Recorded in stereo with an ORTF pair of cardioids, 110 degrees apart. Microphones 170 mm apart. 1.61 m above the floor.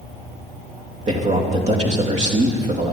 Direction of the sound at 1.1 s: 40° right.